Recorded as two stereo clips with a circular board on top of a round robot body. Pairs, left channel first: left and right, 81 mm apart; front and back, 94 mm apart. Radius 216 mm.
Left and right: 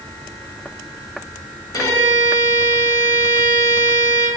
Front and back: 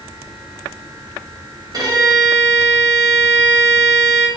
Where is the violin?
135° left, 1.5 m.